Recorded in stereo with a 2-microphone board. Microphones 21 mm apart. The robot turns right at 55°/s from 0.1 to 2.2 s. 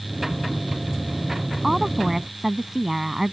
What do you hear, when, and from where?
1.6 s a woman speaking: 10° right (ahead or behind); by 3.3 s 20° right (ahead or behind)